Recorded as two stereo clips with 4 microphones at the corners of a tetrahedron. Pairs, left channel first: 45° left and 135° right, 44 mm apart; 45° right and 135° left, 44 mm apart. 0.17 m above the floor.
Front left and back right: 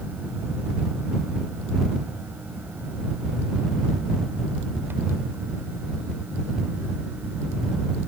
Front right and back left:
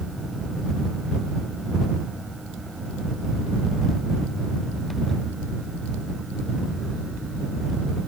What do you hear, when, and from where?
Only background noise.